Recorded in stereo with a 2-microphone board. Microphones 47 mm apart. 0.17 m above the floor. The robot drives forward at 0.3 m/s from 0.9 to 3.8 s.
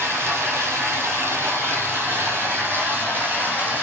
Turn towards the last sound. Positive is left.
turn(degrees=-40)  # may be behind; listen again after turning